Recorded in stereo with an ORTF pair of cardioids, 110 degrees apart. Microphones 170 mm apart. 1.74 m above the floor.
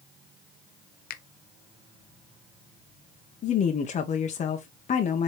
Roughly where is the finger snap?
Ahead left.